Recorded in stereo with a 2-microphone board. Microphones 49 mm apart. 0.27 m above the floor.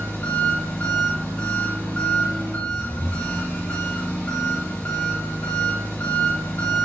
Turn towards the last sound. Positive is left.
turn(degrees=40)  # may be behind; listen again after turning